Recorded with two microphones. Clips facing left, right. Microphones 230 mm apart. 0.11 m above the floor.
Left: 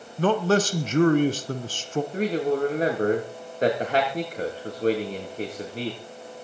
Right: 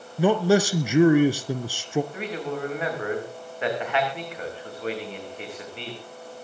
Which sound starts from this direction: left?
A man speaking, at 2.1 s.